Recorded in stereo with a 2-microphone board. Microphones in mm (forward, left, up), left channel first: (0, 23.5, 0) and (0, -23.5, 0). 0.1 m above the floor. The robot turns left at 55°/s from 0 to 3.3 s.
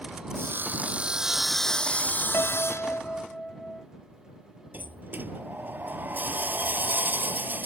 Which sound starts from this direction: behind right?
Sawing, at 0.3 s.